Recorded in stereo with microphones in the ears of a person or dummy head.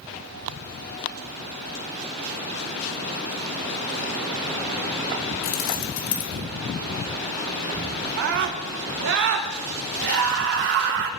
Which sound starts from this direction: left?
Keys jangling, at 5.4 s.